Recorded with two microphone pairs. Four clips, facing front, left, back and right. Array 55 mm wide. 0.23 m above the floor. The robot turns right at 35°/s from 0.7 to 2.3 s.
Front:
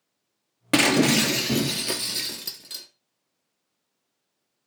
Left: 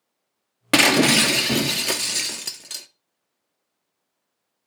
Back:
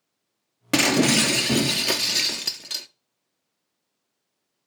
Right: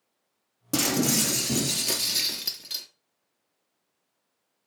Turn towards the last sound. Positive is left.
turn(degrees=140)